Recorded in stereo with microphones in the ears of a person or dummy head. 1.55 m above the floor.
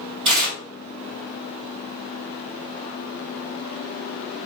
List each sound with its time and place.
0.2 s tearing paper: 25° right (ahead or behind), 1.8 m